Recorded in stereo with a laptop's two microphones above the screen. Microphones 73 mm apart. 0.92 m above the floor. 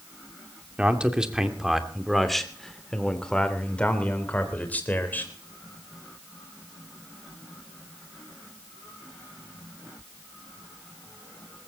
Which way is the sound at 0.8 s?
15° right (ahead or behind).